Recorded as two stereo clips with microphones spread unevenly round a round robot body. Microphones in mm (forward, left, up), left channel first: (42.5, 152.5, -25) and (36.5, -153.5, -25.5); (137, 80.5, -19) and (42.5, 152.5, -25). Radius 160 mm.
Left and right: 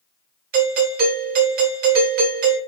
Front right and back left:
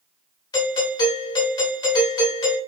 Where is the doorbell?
65° right, 1.6 m.